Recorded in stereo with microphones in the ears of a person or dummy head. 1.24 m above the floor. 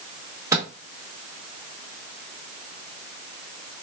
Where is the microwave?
15° right (ahead or behind), 1.3 m.